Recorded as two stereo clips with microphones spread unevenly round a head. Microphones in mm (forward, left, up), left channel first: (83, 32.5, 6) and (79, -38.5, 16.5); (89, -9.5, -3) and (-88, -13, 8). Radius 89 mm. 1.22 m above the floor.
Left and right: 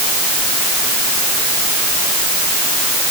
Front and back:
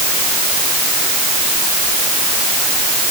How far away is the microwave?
I don't hear a microwave.